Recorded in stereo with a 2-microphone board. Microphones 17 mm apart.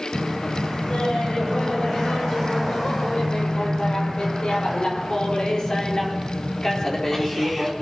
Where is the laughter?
80° left, 9 m; by 7.7 s 25° left (ahead or behind), 5 m.